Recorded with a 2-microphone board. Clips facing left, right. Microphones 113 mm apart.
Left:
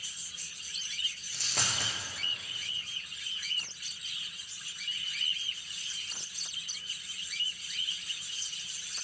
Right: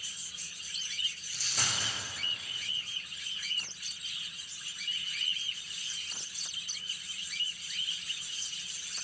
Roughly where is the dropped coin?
Left.